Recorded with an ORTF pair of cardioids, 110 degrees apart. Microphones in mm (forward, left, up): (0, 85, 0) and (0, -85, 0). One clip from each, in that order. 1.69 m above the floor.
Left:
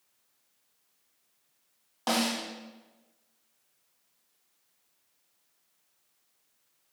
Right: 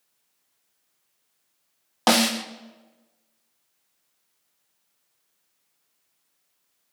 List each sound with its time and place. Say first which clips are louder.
2.1 s a snare drum: right 8 dB; 60° right, 0.8 m